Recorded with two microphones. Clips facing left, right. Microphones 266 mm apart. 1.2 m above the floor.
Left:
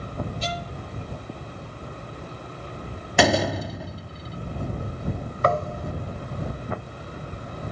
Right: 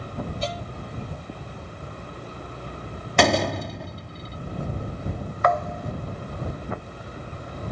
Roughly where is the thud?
Left.